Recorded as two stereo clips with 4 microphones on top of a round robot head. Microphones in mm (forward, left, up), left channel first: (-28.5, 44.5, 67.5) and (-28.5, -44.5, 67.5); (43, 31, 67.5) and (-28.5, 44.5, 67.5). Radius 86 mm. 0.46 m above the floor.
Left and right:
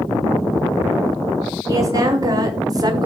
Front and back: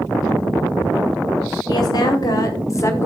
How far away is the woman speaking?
About 3 m.